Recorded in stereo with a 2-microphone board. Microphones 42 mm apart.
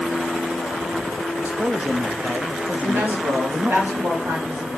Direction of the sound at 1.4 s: 40° right (ahead or behind).